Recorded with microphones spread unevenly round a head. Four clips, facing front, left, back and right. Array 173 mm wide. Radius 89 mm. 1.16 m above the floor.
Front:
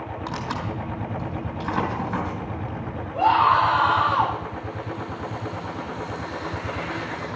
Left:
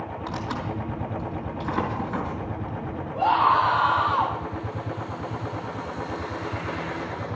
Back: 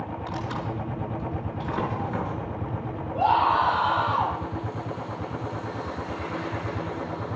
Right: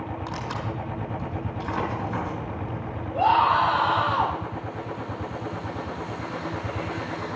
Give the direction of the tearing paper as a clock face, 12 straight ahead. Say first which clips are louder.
Left 4 dB, front 3 dB; 12 o'clock.